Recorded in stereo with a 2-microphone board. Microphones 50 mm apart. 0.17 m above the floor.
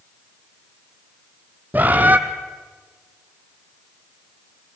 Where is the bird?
35° right (ahead or behind), 1.2 m.